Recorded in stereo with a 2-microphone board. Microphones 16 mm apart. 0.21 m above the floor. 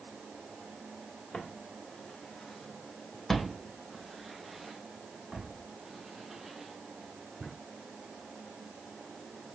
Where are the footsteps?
75° left (ahead or behind), 1.3 m; by 7.5 s 50° right (ahead or behind), 3 m.